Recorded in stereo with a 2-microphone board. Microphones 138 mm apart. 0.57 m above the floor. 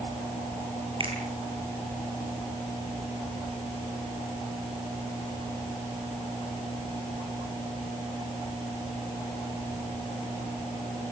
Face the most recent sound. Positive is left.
turn(degrees=-40)  # may be behind; listen again after turning